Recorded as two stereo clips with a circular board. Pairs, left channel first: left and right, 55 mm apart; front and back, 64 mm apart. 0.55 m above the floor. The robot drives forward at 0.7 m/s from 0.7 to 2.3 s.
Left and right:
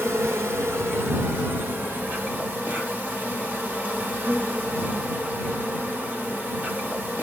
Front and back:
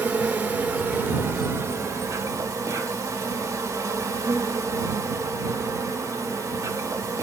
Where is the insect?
115° right, 1.4 m; by 7.2 s 145° right, 2 m.